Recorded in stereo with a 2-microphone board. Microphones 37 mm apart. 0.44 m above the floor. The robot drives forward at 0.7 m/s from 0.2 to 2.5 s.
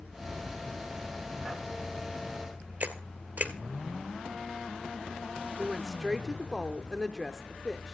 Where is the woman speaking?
Centre (ahead or behind), 0.7 m.